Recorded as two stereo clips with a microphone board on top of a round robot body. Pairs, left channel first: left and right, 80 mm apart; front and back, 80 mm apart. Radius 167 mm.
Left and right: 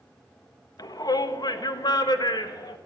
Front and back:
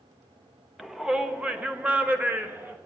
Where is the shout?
95° left, 1.2 m; by 2.8 s 115° left, 2 m.